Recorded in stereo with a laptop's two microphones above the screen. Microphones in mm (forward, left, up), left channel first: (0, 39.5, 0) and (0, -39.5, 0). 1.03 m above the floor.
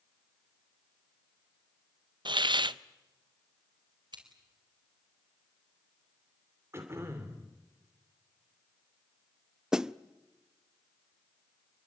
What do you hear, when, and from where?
2.2 s a hiss: 75° right (ahead or behind), 0.6 m
4.1 s scissors: 70° right (ahead or behind), 4.5 m
6.7 s throat clearing: 30° right (ahead or behind), 2.5 m
9.7 s a snare drum: 10° right (ahead or behind), 0.6 m